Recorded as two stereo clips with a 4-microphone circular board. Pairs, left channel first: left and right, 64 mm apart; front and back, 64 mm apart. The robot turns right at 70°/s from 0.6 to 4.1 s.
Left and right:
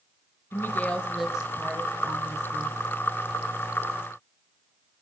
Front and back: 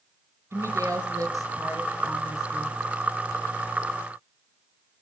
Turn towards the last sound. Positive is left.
turn(degrees=25)